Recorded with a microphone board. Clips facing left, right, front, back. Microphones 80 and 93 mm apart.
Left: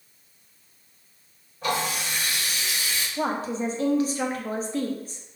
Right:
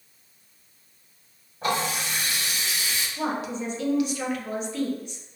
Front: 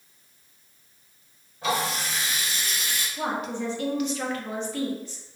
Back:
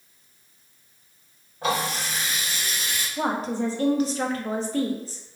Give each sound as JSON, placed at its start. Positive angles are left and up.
{"t": 1.6, "sound": "a running tap", "azimuth_deg": -145, "distance_m": 1.8}
{"t": 3.2, "sound": "a woman speaking", "azimuth_deg": 135, "distance_m": 0.5}